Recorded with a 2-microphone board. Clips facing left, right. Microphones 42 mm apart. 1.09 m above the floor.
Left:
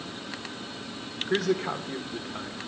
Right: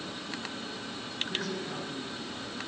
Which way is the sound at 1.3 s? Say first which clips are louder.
Left 12 dB; 80° left.